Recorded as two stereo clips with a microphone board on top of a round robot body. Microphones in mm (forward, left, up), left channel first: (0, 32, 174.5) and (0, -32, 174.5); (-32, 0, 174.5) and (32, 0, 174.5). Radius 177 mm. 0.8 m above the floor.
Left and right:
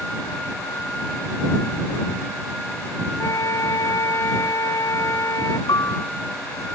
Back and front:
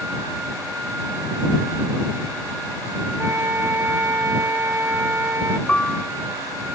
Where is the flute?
55° left.